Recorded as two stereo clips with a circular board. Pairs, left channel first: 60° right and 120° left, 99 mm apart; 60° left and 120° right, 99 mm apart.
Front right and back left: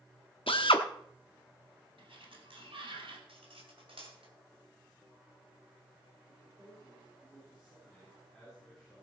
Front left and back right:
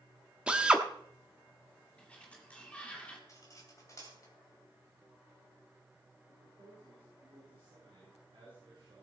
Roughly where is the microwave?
No microwave in this recording.